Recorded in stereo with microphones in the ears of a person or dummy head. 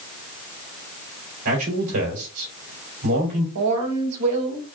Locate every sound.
1.4 s a man speaking: 75° right (ahead or behind), 2.5 m
3.5 s a woman speaking: 85° right, 1.5 m